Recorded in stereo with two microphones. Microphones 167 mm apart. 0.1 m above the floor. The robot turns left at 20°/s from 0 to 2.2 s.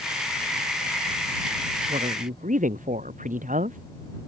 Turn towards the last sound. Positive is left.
turn(degrees=-50)  # may be behind; listen again after turning